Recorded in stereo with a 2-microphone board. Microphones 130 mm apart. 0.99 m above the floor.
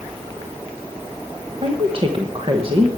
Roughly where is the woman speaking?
Right.